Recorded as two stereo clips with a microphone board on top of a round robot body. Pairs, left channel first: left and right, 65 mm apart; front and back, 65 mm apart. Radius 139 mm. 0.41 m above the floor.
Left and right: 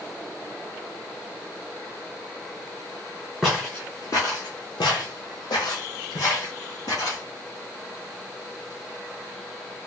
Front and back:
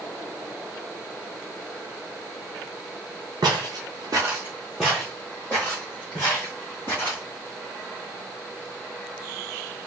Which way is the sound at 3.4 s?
Straight behind.